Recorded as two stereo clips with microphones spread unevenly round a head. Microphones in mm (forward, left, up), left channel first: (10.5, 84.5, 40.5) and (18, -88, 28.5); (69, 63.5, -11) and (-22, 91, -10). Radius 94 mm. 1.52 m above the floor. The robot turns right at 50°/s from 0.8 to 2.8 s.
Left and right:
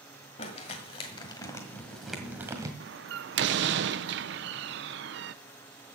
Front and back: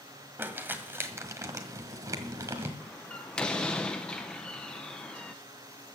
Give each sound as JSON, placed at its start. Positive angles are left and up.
{"t": 0.4, "sound": "crumpling", "azimuth_deg": 115, "distance_m": 1.5}
{"t": 2.8, "sound": "a door slam", "azimuth_deg": -95, "distance_m": 0.6}